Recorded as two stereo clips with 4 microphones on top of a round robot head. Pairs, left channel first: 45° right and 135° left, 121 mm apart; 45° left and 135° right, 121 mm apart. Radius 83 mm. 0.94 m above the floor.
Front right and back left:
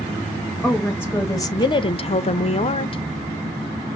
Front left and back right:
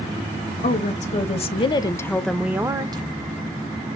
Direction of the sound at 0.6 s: 35° left.